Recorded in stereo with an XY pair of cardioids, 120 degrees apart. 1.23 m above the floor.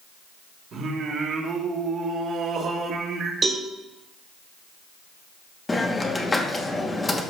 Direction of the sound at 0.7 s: 50° right.